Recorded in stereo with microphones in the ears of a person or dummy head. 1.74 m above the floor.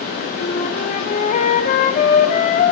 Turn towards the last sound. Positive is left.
turn(degrees=35)  # may be behind; listen again after turning